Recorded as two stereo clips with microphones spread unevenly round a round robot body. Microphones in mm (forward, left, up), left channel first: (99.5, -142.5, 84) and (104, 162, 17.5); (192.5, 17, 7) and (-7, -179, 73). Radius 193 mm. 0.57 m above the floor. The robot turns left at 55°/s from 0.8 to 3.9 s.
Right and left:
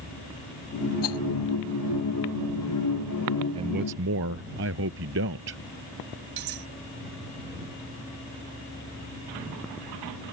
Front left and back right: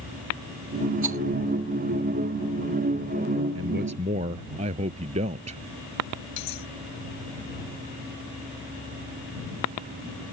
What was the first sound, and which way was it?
A rattle, 110° right.